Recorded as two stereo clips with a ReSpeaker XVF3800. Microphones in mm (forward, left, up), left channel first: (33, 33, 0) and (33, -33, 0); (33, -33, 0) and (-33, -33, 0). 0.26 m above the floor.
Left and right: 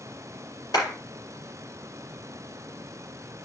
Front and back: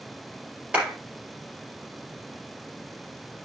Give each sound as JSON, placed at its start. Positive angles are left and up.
{"t": 0.7, "sound": "a clap", "azimuth_deg": 105, "distance_m": 4.5}